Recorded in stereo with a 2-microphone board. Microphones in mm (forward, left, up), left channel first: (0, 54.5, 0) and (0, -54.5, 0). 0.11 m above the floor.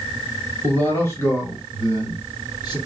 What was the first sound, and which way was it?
A man speaking, 15° left (ahead or behind).